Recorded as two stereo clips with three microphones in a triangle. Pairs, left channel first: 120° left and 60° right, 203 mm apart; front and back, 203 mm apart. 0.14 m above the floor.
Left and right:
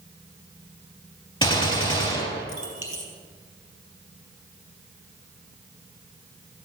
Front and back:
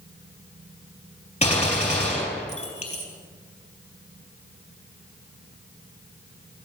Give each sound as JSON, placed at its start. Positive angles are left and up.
{"t": 1.4, "sound": "a gunshot", "azimuth_deg": 55, "distance_m": 3.5}